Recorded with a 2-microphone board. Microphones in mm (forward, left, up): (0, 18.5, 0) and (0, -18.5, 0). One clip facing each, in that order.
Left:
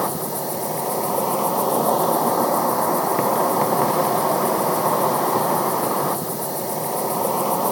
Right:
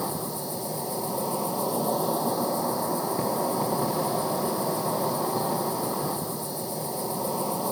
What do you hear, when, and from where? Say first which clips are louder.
0.0 s an insect: left 7 dB; 80° left, 1.1 m